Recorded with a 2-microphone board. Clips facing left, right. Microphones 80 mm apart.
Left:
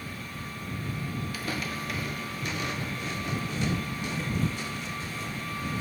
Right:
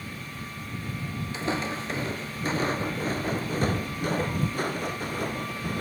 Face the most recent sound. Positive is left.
turn(degrees=-55)  # may be behind; listen again after turning